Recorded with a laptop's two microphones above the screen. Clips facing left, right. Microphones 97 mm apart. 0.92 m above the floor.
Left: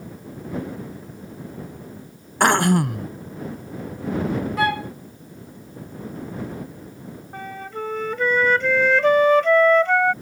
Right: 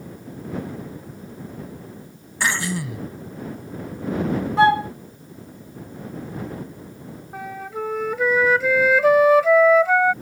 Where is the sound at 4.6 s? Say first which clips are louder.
Right 9 dB; 30° right (ahead or behind).